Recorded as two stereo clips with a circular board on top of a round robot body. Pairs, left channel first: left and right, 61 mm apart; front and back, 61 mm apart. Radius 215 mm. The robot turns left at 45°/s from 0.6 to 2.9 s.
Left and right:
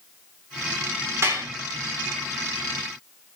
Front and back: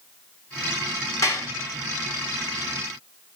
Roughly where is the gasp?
No gasp in this recording.